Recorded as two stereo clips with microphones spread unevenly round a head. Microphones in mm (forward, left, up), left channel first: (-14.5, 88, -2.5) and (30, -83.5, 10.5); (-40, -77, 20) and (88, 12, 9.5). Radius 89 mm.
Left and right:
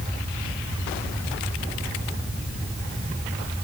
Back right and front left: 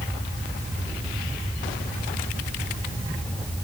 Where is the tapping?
I don't hear tapping.